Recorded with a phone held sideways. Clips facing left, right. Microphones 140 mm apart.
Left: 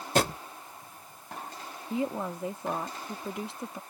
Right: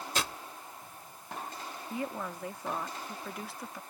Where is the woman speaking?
25° left (ahead or behind).